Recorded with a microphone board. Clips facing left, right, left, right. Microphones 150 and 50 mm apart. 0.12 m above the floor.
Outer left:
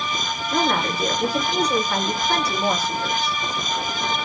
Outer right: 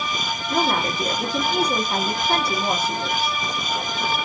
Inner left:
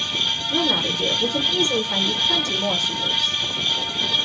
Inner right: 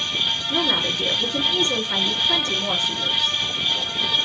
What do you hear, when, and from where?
0.5 s a woman speaking: 30° right (ahead or behind), 1.8 m